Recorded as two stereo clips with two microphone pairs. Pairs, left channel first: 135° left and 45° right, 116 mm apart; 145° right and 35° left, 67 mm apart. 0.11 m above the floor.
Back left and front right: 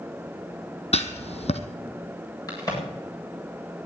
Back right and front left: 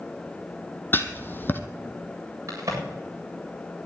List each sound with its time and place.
0.9 s writing: 155° left, 1.3 m
2.5 s a crack: 80° left, 8.5 m